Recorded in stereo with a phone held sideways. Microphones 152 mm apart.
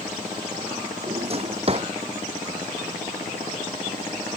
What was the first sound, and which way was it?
A drawer, 40° right (ahead or behind).